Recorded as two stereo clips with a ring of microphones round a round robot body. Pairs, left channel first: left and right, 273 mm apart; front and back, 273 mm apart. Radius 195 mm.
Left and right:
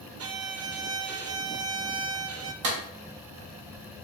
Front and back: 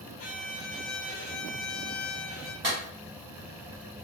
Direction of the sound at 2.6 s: 120° right.